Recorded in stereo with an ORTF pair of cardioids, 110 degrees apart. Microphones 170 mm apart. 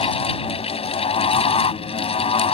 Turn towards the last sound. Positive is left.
turn(degrees=35)